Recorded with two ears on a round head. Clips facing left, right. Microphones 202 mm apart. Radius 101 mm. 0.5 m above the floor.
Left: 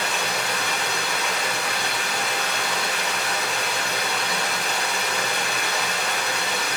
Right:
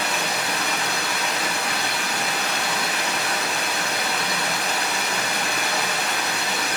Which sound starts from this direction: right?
Running water, at 0.0 s.